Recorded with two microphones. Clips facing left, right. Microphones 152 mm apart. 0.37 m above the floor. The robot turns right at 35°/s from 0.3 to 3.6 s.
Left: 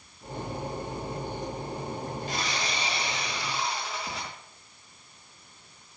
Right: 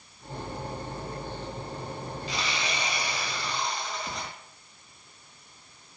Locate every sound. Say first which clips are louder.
2.3 s sawing: right 3 dB; 130° left, 4 m; by 4.3 s 175° left, 4 m